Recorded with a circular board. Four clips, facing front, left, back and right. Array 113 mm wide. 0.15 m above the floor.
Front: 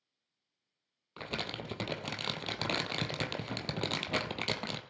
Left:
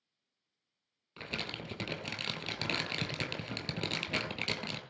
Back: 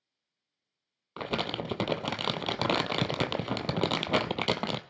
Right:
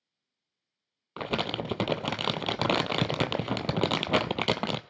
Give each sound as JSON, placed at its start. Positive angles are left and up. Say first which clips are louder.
{"t": 1.2, "sound": "crumpling", "louder": "right 12 dB, back 8 dB", "azimuth_deg": -120, "distance_m": 0.6}